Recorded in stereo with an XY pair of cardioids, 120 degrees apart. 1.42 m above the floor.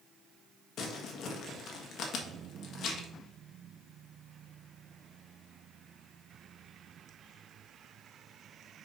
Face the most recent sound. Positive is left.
turn(degrees=60)